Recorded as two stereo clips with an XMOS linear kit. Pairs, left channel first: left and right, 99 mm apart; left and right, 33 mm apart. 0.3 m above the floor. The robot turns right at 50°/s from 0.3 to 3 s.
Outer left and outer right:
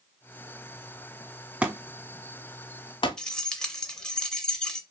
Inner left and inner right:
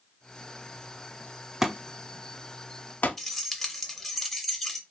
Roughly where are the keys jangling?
Centre.